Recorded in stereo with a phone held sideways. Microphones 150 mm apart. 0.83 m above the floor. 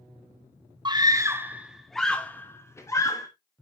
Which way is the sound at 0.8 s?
30° right (ahead or behind).